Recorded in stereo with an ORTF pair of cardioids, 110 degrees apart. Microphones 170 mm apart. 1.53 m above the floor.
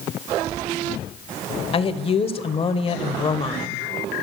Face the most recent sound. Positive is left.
turn(degrees=35)